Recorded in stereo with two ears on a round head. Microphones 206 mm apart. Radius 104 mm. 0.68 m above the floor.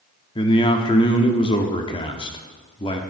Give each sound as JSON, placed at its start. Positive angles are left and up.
{"t": 0.3, "sound": "a man speaking", "side_deg": 20, "distance_m": 1.0}